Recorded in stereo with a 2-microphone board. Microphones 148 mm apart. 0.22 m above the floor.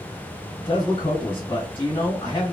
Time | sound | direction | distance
0.6 | a man speaking | 30° left (ahead or behind) | 1.7 m